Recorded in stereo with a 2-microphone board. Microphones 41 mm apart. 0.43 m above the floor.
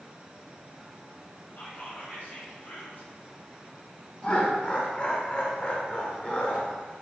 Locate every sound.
1.6 s whispering: 60° left (ahead or behind), 3 m
4.2 s laughter: 30° left (ahead or behind), 1.1 m